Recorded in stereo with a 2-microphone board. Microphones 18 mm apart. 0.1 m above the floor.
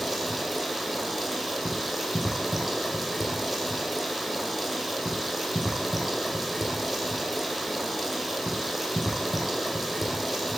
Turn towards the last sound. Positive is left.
turn(degrees=-10)  # may be behind; listen again after turning